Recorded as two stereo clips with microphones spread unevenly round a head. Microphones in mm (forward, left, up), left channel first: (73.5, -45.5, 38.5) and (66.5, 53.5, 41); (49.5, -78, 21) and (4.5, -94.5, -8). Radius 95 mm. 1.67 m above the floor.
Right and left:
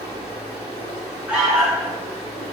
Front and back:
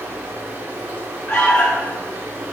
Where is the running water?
125° left, 1.5 m.